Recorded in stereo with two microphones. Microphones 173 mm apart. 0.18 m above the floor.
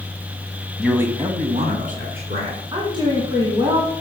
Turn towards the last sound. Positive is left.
turn(degrees=-25)  # may be behind; listen again after turning